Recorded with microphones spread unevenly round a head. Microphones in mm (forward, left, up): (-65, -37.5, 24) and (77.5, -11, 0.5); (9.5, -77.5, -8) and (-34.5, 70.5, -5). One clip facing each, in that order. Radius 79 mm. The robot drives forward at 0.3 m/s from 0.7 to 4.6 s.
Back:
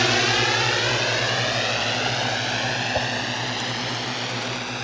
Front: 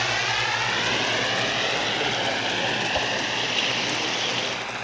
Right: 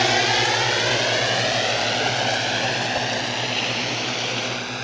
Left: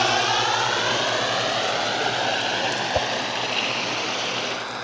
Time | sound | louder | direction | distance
0.0 | a drone | back 6 dB, right 1 dB | 145° right | ?
2.9 | a whoosh | back 4 dB, left 2 dB | 135° left | ?